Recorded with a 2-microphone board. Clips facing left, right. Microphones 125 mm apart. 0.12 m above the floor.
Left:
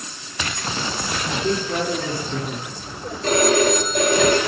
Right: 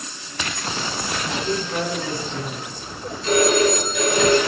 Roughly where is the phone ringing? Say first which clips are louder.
Even; left.